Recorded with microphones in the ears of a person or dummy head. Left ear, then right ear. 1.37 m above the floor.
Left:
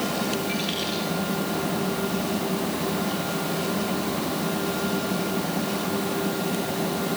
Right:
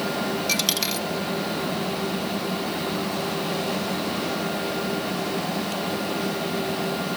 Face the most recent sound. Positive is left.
turn(degrees=-70)  # may be behind; listen again after turning